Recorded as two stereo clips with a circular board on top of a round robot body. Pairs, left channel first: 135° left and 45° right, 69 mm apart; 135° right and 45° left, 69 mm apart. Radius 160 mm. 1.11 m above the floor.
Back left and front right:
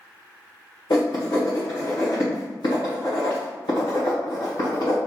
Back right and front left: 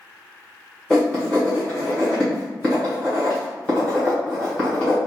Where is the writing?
150° left, 1.7 m.